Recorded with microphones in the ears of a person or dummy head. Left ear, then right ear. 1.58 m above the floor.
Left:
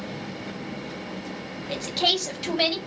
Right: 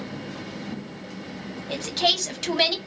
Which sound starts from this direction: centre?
A woman speaking, at 1.7 s.